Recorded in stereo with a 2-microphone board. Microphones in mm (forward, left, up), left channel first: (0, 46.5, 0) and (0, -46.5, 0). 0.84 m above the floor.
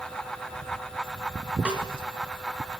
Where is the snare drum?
15° right (ahead or behind), 3.5 m.